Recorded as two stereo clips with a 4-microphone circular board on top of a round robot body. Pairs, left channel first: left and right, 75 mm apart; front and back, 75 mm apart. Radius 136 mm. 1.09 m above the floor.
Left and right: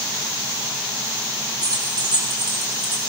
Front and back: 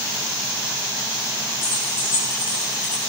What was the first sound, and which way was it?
Keys jangling, 60° right.